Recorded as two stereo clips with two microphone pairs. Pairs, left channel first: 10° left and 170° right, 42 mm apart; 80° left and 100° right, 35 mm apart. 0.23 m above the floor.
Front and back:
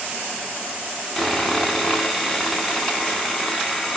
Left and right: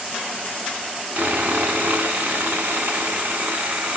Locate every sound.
1.2 s sawing: 75° right, 0.8 m